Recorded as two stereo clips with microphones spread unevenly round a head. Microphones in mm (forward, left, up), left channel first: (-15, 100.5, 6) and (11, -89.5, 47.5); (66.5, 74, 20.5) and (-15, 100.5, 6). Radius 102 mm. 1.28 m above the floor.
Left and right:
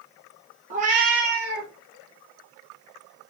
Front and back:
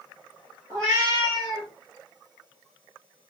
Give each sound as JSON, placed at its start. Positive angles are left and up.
{"t": 0.7, "sound": "a cat meowing", "azimuth_deg": -120, "distance_m": 0.7}